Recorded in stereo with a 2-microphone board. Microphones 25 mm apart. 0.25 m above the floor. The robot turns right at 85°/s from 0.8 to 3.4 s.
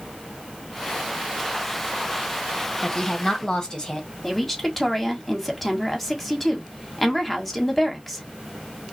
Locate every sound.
2.8 s a woman speaking: 25° left (ahead or behind), 1.4 m
4.2 s a woman speaking: 5° left (ahead or behind), 1.5 m